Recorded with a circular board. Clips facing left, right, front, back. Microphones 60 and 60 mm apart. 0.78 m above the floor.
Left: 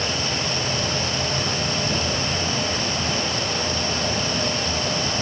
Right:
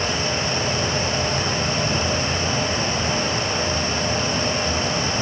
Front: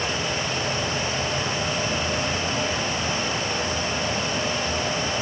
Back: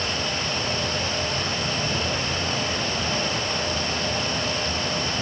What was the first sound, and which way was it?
Only background noise.